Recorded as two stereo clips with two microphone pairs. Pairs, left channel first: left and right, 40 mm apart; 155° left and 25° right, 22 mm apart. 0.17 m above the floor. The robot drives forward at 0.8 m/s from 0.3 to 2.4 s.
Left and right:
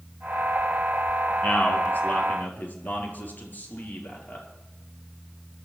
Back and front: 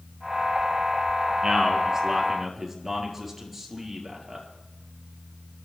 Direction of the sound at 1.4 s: 45° left.